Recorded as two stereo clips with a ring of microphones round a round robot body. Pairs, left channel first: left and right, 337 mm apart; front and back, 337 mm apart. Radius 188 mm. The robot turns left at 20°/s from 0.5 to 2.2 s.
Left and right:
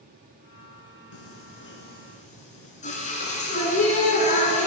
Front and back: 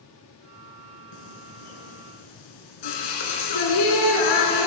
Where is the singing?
40° left, 3.5 m; by 4.7 s 20° left, 3.5 m.